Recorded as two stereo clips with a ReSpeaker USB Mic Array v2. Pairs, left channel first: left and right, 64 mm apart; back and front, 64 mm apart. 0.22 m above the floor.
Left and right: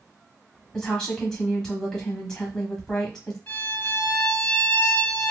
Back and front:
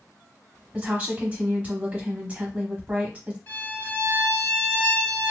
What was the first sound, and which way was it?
A woman speaking, 20° left.